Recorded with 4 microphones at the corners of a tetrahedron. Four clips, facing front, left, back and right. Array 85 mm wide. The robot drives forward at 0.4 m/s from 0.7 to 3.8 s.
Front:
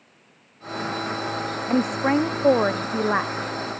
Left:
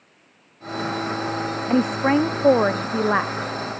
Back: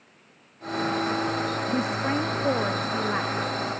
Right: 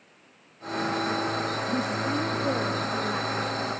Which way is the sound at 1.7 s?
60° left.